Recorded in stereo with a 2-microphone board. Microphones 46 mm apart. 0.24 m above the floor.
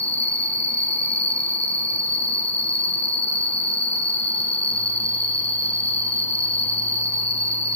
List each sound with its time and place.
0.0 s an insect: 25° left (ahead or behind), 0.8 m